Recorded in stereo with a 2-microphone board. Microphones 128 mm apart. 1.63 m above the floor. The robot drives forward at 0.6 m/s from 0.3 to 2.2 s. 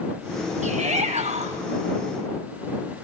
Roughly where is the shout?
Right.